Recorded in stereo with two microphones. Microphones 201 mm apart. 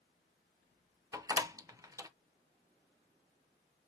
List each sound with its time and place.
1.1 s a door slam: 15° right (ahead or behind), 0.6 m